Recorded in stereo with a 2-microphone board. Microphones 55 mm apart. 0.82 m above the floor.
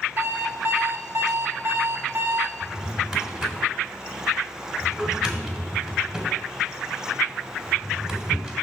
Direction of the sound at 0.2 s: 45° right (ahead or behind).